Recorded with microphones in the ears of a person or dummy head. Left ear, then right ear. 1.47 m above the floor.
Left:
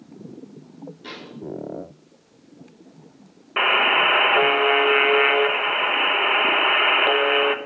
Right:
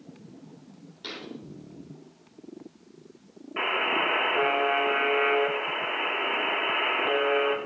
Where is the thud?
35° right (ahead or behind), 7 m.